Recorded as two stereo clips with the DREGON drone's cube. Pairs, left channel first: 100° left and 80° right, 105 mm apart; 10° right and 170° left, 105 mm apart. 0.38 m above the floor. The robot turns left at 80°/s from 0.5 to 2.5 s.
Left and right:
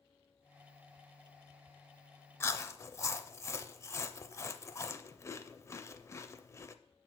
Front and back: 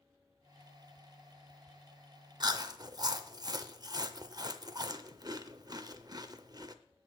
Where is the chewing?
150° left, 0.5 m; by 6.8 s 145° left, 0.5 m.